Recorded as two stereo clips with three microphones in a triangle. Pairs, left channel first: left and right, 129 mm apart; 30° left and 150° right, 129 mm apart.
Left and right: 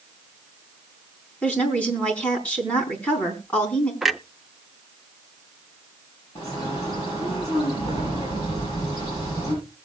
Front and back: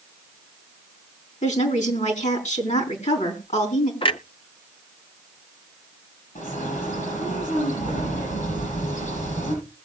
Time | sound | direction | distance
1.4 | a woman speaking | 10° left | 4 m
4.0 | a clunk | straight ahead | 0.5 m
6.3 | a bird | 30° left | 8.5 m